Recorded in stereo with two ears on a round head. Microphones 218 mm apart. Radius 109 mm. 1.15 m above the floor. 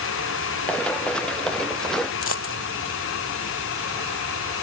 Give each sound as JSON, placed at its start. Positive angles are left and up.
{"t": 0.7, "sound": "running footsteps", "side_deg": 5}
{"t": 2.2, "sound": "a dropped coin", "side_deg": 55}